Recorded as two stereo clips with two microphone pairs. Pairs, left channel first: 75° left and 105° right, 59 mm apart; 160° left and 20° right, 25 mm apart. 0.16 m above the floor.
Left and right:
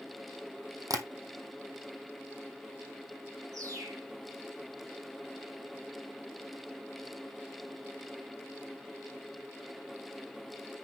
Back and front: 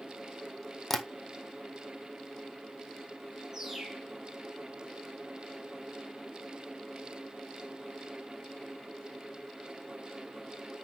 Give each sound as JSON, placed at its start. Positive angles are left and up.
{"t": 0.9, "sound": "tapping", "azimuth_deg": -120, "distance_m": 1.5}
{"t": 3.5, "sound": "a bird", "azimuth_deg": -90, "distance_m": 4.5}